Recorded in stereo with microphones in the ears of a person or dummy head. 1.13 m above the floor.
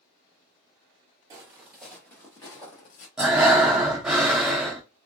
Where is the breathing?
Centre (ahead or behind), 0.6 m.